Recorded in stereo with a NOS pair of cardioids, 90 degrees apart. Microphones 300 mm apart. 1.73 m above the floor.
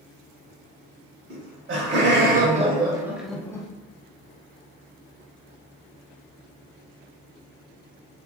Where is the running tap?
No running tap in this recording.